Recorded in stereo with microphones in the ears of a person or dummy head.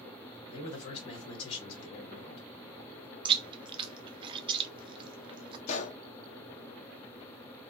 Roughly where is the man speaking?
Left.